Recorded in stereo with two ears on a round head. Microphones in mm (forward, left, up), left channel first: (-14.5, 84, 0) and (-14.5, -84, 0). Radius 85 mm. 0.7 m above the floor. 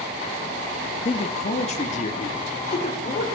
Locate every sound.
1.1 s a man speaking: 30° left (ahead or behind), 0.9 m; by 3.2 s 40° left (ahead or behind), 2.5 m